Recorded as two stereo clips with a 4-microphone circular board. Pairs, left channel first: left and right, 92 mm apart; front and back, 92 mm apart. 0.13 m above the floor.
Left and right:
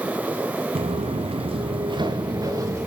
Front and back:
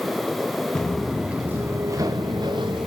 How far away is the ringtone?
No ringtone in this recording.